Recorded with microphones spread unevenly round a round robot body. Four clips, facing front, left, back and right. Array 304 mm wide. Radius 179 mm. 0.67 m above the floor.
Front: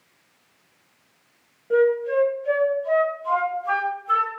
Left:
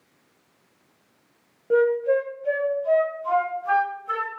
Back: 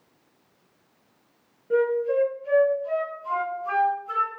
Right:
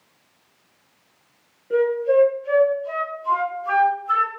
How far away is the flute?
About 1.3 m.